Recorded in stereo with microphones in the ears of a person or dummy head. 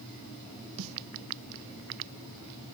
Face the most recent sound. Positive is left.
turn(degrees=-80)